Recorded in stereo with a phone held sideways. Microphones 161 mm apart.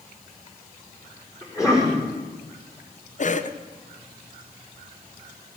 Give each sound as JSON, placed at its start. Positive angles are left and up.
{"t": 1.4, "sound": "a cough", "side_deg": 20, "distance_m": 5.5}
{"t": 3.2, "sound": "a cough", "side_deg": 50, "distance_m": 0.9}